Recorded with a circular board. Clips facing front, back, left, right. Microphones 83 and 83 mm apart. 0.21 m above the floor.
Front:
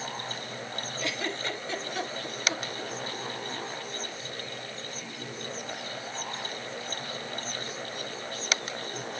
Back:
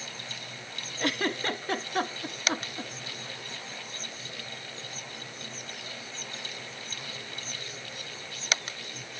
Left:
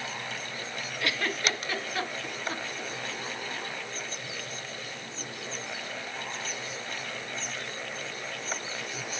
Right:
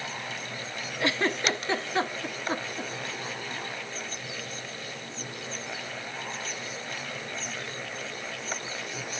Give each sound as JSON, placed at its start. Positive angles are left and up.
{"t": 1.0, "sound": "a giggle", "azimuth_deg": -150, "distance_m": 0.9}